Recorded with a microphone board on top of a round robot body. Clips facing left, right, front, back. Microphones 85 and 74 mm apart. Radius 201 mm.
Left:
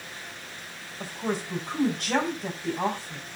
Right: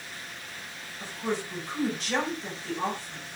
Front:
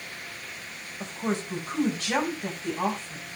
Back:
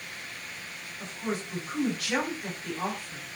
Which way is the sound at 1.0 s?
60° left.